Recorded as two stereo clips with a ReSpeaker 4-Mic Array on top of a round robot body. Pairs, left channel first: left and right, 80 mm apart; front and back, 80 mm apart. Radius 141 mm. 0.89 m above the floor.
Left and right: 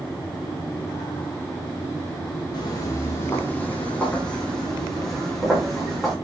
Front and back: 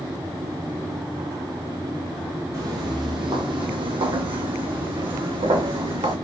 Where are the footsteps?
130° left, 1.3 m; by 6.1 s straight behind, 3.5 m.